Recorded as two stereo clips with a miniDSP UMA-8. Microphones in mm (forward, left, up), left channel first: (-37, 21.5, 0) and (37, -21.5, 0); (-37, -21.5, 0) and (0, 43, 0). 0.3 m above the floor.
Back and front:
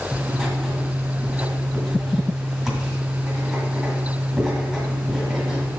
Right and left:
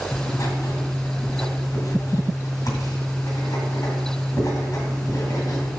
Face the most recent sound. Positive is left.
turn(degrees=-120)